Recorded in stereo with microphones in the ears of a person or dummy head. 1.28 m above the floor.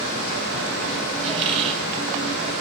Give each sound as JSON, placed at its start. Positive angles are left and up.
{"t": 1.2, "sound": "a squeak", "side_deg": -35, "distance_m": 1.8}